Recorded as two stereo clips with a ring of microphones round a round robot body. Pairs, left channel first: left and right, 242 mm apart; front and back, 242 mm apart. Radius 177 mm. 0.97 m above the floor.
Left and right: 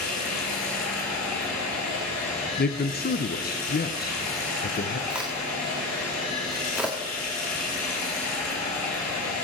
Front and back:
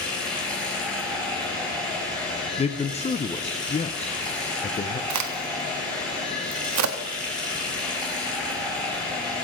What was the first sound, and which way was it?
Running water, 85° left.